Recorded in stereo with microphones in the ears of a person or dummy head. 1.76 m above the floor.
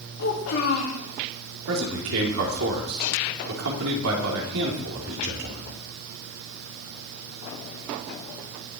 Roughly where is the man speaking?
Right.